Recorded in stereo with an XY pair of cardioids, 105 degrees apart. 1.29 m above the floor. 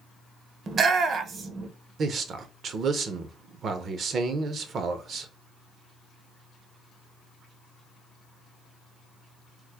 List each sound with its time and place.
0.7 s a shout: 50° right, 0.7 m
2.0 s a man speaking: 55° right, 0.6 m